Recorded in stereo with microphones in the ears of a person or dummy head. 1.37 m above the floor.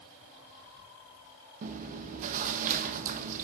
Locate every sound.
1.6 s chewing: 45° right (ahead or behind), 0.9 m